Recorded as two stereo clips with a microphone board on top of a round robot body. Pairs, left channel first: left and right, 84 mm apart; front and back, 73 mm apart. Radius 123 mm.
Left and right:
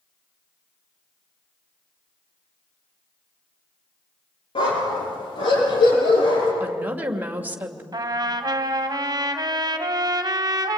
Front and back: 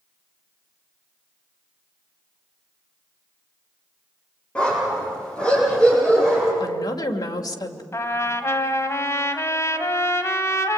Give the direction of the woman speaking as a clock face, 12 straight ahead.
1 o'clock.